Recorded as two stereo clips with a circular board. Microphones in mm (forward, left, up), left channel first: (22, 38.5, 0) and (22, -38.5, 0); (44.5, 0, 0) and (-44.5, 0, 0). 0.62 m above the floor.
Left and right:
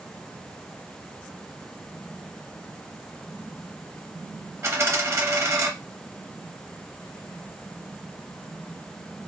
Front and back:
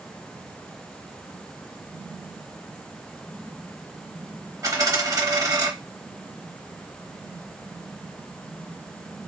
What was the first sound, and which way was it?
A dropped coin, 135° right.